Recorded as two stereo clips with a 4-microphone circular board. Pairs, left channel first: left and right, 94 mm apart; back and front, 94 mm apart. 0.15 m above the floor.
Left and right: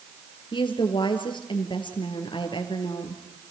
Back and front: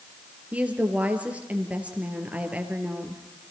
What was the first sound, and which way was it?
A woman speaking, 75° left.